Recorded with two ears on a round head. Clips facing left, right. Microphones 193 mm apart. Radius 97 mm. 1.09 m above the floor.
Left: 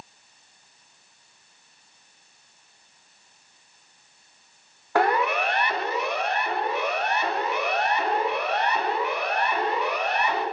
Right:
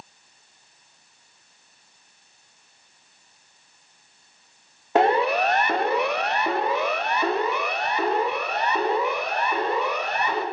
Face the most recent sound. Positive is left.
turn(degrees=-80)